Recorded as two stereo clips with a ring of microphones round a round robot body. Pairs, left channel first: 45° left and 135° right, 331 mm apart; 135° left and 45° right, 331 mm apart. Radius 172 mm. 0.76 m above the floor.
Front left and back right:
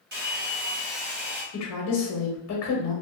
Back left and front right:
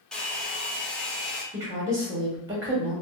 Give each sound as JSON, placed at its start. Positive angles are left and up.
{"t": 0.1, "sound": "a hair dryer", "azimuth_deg": -140, "distance_m": 0.9}
{"t": 1.5, "sound": "a woman speaking", "azimuth_deg": 30, "distance_m": 0.9}